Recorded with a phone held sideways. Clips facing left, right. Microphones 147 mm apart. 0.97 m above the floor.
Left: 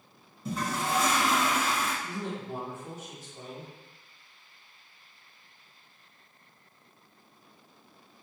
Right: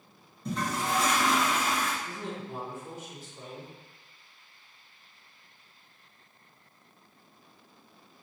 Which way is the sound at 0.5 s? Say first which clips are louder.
Even; 5° left (ahead or behind).